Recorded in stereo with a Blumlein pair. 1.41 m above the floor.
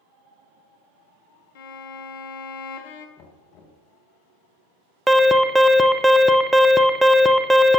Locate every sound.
1.6 s a violin: 50° left, 1.0 m
3.2 s knocking: 40° left, 1.3 m
5.1 s an alarm: 5° right, 0.7 m